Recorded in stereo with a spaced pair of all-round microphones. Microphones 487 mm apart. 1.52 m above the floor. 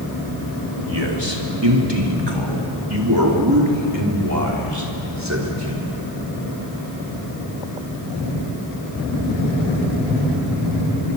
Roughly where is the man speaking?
Right.